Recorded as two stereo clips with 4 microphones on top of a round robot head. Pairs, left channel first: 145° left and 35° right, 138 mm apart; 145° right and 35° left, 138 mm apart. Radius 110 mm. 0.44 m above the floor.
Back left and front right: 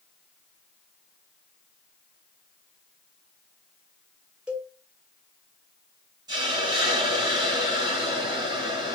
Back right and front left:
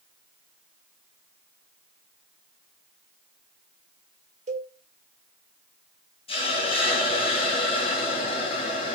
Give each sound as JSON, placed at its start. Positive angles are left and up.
{"t": 4.5, "sound": "a cowbell", "azimuth_deg": 45, "distance_m": 2.0}
{"t": 6.3, "sound": "a hiss", "azimuth_deg": -95, "distance_m": 3.0}